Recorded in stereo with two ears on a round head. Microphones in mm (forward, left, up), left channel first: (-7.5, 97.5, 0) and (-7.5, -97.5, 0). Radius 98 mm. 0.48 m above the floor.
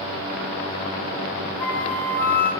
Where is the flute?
5° left (ahead or behind), 1.4 m.